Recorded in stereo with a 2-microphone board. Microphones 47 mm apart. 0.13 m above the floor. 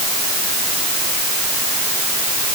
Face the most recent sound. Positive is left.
No sound to turn to.